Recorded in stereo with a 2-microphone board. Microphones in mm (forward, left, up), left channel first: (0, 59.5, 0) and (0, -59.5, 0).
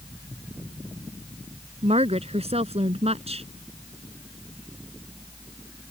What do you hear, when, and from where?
1.8 s a woman speaking: 60° right (ahead or behind)